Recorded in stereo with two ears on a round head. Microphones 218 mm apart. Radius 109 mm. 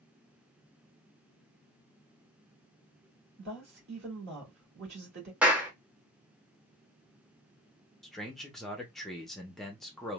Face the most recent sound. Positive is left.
turn(degrees=0)  # may be behind; listen again after turning